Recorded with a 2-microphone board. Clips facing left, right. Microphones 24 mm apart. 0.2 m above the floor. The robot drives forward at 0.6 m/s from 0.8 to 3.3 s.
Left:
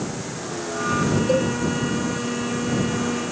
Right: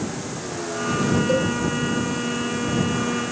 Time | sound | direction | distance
1.3 | a cowbell | 15° left (ahead or behind) | 1.3 m